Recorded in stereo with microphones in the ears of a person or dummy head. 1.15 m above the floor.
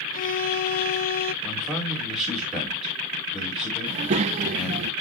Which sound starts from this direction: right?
A child speaking, at 3.9 s.